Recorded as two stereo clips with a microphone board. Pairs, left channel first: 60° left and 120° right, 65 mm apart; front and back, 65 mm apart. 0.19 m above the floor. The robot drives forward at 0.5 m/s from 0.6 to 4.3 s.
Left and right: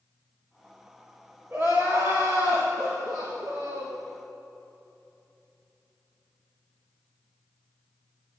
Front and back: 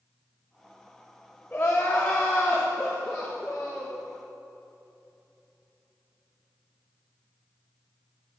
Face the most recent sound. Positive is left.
turn(degrees=-90)